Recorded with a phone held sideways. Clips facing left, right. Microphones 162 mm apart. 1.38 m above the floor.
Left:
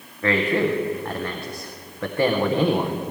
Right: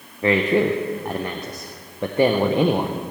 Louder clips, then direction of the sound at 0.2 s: Right 3 dB; 20° right (ahead or behind).